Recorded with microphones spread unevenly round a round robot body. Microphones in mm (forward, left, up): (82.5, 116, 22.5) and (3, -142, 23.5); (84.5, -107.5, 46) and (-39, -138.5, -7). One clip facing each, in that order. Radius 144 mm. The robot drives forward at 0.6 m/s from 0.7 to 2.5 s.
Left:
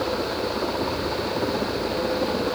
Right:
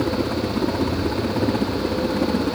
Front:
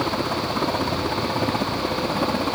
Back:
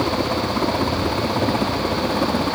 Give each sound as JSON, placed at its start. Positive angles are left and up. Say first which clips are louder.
{"t": 0.0, "sound": "a helicopter", "louder": "right 4 dB, back 3 dB", "azimuth_deg": -95}